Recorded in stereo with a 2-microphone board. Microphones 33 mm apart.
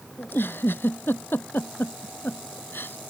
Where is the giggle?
80° left.